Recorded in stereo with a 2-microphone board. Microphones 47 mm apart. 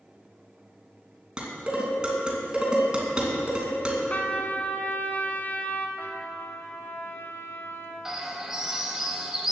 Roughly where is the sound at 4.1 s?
Left.